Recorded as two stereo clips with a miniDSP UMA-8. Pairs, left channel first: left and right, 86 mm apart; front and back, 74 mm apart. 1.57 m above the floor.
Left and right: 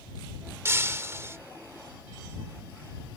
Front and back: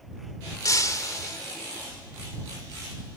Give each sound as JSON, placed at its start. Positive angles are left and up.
{"t": 0.7, "sound": "breaking glass", "azimuth_deg": -35}